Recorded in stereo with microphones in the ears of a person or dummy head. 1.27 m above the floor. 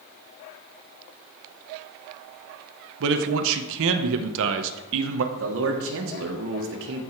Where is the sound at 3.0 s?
75° right (ahead or behind), 0.8 m.